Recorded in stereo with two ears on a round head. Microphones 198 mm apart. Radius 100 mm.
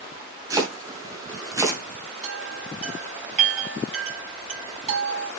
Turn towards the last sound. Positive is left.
turn(degrees=-35)  # may be behind; listen again after turning